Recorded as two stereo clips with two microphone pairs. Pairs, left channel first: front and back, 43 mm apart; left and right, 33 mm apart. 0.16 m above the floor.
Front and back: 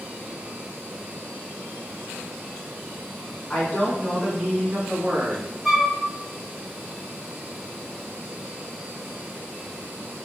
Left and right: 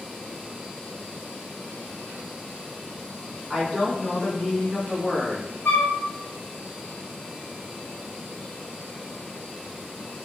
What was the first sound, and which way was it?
A woman speaking, 20° right.